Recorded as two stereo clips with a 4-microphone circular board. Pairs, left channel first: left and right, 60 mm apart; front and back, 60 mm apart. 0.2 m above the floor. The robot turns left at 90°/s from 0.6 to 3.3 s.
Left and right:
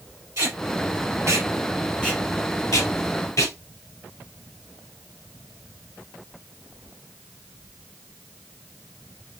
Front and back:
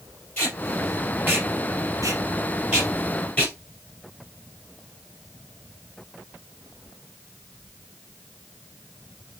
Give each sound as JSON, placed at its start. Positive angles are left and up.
{"t": 0.4, "sound": "tape being pulled", "azimuth_deg": -60, "distance_m": 3.0}